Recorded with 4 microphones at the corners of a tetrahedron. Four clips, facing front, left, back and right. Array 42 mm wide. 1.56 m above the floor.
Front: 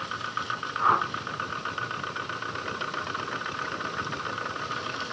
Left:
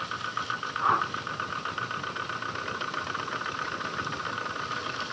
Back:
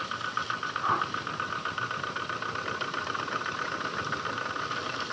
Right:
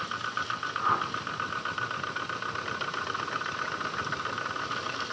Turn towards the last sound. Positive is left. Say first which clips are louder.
# left 3 dB, front 6 dB
turn(degrees=15)